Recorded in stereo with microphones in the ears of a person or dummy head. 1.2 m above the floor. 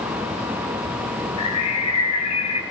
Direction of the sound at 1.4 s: 35° left (ahead or behind).